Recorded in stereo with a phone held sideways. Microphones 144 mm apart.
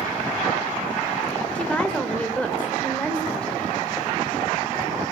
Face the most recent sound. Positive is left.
turn(degrees=5)  # may be behind; listen again after turning